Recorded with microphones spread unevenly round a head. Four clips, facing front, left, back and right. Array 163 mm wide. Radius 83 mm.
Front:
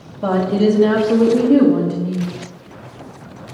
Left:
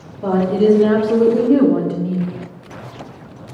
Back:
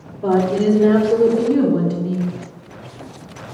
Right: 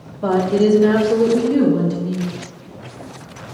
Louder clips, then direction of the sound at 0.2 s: Left 1 dB, even; 20° right.